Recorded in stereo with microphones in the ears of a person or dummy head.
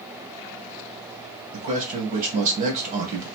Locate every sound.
1.5 s a man speaking: 40° right (ahead or behind), 1.5 m